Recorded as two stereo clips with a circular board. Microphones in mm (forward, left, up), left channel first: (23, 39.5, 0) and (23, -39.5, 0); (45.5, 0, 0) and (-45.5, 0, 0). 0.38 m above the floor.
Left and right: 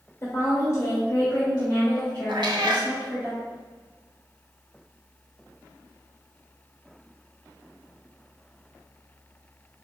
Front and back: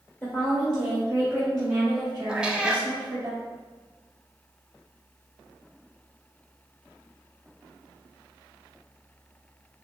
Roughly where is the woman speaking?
Ahead left.